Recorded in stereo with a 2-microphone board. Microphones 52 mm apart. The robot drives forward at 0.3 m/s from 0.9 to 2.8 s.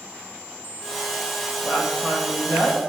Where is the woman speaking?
40° left (ahead or behind), 1.7 m; by 2.8 s 35° left (ahead or behind), 1.8 m.